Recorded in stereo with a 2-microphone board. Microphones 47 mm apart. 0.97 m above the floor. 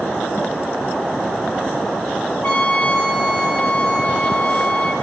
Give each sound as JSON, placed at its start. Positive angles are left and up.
{"t": 2.4, "sound": "a trumpet", "side_deg": 35, "distance_m": 1.2}